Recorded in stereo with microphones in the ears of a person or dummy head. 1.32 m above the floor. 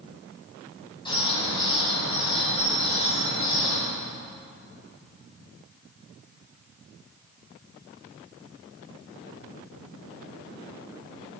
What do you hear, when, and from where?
1.1 s a bird: 20° left (ahead or behind), 9.5 m